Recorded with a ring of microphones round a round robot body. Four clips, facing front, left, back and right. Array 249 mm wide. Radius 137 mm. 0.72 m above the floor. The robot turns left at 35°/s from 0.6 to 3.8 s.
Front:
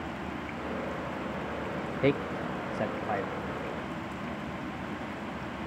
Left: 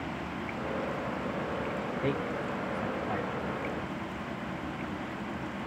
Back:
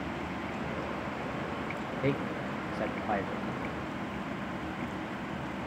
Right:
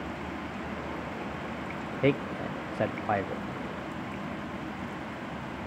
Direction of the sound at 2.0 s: 50° right.